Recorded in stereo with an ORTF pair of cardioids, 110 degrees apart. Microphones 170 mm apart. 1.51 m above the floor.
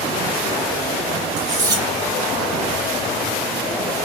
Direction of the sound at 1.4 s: 25° right.